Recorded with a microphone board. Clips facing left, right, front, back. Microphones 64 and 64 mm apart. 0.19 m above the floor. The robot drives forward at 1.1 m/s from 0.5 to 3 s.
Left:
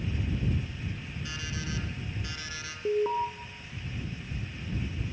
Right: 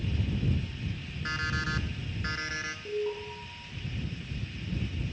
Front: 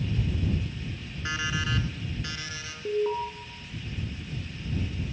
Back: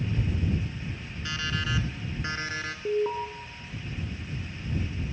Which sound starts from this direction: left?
An alarm, at 2.9 s.